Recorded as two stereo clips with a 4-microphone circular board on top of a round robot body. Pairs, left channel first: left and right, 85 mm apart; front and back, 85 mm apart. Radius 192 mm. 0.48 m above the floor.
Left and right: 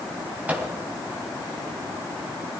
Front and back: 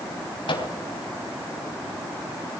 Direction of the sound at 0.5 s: 15° right.